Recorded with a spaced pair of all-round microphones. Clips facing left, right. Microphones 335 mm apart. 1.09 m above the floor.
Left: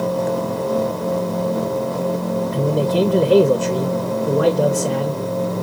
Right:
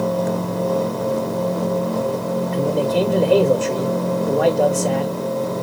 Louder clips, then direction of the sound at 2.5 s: Even; 20° left (ahead or behind).